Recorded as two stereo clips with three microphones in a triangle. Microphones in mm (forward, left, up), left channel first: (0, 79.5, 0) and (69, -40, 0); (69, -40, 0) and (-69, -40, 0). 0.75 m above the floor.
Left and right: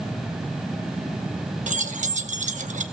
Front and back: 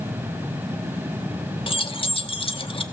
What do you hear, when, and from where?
1.7 s keys jangling: 45° right, 0.8 m